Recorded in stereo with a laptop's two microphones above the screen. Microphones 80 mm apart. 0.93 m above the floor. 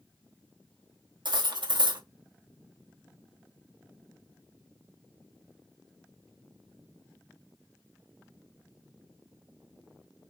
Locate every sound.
1.2 s cutlery clinking: 75° right (ahead or behind), 0.6 m